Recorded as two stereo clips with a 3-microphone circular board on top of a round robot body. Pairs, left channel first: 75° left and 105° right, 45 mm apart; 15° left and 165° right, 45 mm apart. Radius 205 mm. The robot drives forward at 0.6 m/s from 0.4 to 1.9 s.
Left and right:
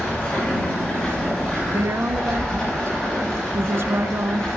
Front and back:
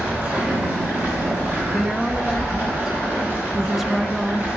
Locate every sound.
0.0 s running water: 140° left, 3 m; by 4.6 s 150° left, 3.5 m
1.7 s a woman speaking: 65° right, 0.5 m; by 4.5 s 80° right, 0.5 m